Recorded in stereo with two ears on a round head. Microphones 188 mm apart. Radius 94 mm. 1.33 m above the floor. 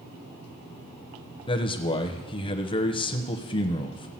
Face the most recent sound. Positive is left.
turn(degrees=25)  # may be behind; listen again after turning